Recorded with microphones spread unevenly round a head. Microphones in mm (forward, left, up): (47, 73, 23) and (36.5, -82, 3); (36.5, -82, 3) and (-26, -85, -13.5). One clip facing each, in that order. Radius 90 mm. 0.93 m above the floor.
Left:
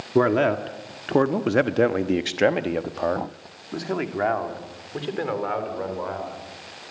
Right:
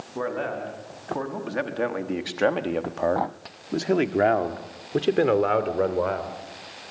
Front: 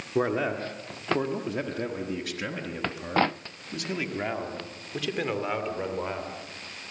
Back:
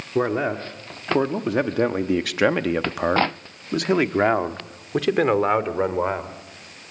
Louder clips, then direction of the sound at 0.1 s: Left 10 dB, back 4 dB; 100° left.